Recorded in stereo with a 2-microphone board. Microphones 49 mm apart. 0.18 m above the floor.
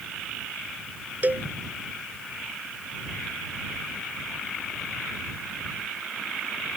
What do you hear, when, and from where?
1.2 s a cowbell: 40° right (ahead or behind)